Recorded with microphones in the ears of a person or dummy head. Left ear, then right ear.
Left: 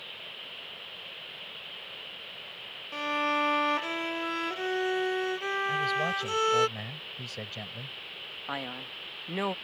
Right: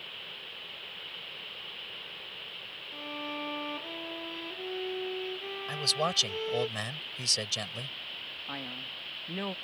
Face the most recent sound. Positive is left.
turn(degrees=25)  # may be behind; listen again after turning